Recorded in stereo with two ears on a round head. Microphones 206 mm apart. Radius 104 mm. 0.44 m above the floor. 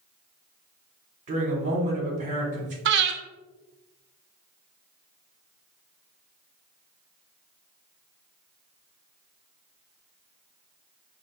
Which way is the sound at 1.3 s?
35° right (ahead or behind).